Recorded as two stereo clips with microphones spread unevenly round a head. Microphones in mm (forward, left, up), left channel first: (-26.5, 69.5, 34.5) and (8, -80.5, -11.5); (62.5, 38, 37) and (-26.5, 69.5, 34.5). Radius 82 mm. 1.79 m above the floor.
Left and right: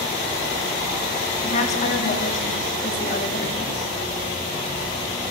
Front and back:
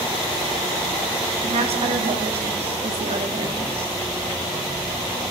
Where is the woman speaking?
150° left, 5 m.